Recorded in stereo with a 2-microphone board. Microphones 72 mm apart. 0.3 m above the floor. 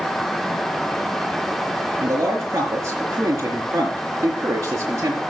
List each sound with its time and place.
2.0 s a man speaking: 40° right (ahead or behind), 5 m